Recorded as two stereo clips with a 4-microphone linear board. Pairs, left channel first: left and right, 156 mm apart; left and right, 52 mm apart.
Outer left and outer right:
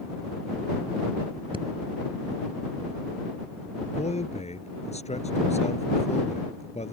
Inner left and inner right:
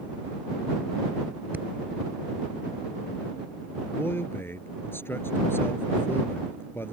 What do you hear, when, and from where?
1.5 s breathing: 35° right (ahead or behind)
3.9 s a man speaking: 45° left (ahead or behind)